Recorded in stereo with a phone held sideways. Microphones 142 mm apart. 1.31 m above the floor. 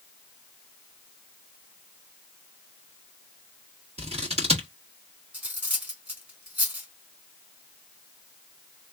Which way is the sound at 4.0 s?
50° right (ahead or behind).